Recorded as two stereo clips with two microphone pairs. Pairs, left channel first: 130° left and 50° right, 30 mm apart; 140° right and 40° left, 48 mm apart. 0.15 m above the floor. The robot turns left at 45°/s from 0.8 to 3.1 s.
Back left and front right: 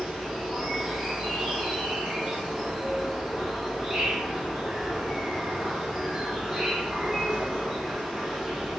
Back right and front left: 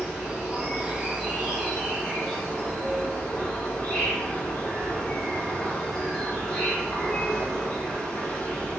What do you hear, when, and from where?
0.0 s an insect: 5° right, 1.3 m; by 8.8 s 110° right, 1.3 m